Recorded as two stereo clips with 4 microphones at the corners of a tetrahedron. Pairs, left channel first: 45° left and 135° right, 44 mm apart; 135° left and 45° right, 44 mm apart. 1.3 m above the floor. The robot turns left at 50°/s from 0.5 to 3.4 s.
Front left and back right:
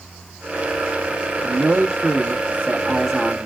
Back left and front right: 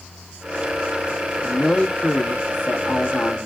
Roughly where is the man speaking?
Behind right.